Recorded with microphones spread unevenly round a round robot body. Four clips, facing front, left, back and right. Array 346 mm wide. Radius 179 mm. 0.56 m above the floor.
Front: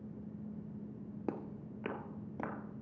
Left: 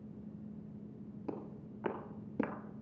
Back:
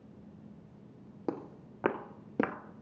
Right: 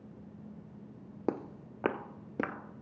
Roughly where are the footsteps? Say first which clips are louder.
Right 9 dB, back 4 dB; right.